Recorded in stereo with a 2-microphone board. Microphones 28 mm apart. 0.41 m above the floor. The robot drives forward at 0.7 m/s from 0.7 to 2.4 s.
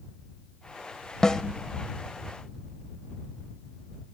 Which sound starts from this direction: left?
A snare drum, at 1.2 s.